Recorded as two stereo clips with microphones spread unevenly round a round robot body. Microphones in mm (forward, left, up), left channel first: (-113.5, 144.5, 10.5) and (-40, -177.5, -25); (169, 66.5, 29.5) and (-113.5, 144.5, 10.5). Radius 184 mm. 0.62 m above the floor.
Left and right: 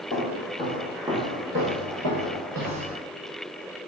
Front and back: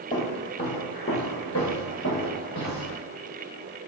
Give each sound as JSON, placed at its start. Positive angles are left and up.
{"t": 0.1, "sound": "footsteps", "azimuth_deg": 50, "distance_m": 0.8}